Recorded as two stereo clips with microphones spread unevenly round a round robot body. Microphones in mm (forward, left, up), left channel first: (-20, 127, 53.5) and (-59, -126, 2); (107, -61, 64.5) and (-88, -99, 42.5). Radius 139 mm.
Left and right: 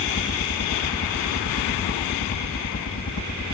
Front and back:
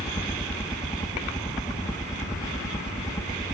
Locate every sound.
0.0 s a helicopter: 80° left